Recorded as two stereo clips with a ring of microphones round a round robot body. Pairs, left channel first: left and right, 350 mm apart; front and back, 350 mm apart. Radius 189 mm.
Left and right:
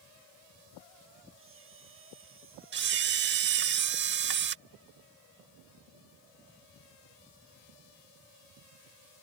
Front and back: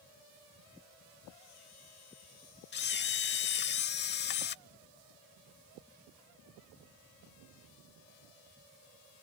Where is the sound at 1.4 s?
35° right.